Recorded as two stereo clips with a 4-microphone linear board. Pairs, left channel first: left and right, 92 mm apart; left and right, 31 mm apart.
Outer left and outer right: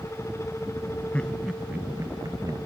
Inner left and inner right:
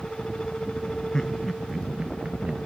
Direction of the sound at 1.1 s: 15° left (ahead or behind).